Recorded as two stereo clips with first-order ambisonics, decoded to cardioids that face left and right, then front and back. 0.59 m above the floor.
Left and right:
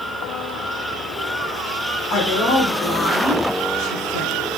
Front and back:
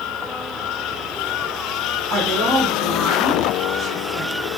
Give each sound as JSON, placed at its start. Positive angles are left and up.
{"t": 2.1, "sound": "a woman speaking", "azimuth_deg": 125, "distance_m": 2.5}